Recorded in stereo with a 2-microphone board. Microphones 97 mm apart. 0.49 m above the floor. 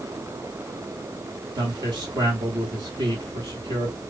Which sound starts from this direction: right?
A man speaking, at 1.6 s.